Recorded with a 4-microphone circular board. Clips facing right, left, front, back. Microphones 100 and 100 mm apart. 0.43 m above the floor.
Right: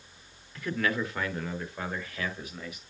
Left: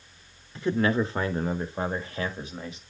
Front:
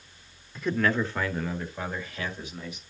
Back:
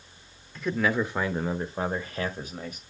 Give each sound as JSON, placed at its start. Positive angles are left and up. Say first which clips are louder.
{"t": 0.6, "sound": "a man speaking", "louder": "left 6 dB, even", "azimuth_deg": 80, "distance_m": 0.9}